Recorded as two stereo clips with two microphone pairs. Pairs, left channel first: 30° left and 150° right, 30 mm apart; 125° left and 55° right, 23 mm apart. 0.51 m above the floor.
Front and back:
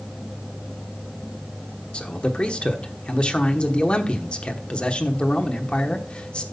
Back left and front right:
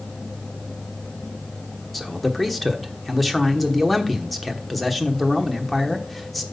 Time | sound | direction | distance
1.9 | a man speaking | 40° left | 1.1 m